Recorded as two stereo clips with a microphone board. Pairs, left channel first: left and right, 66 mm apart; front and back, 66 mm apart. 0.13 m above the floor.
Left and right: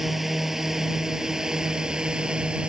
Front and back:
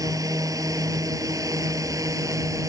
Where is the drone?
175° right; by 2.7 s 165° right.